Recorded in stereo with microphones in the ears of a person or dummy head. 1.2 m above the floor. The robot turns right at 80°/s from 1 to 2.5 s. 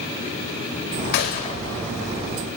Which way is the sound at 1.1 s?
60° left (ahead or behind).